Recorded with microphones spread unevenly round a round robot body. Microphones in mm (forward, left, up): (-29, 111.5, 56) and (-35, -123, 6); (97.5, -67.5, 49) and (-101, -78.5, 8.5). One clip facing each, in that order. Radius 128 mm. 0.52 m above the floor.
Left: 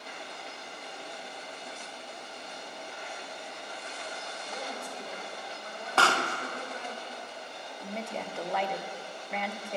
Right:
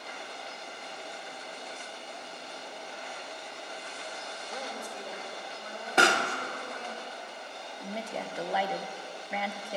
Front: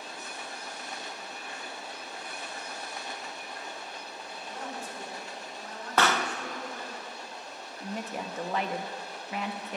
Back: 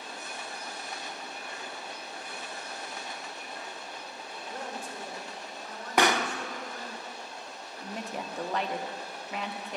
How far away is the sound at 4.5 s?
About 2.5 m.